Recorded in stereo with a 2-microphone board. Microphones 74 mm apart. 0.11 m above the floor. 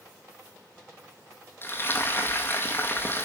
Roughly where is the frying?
Left.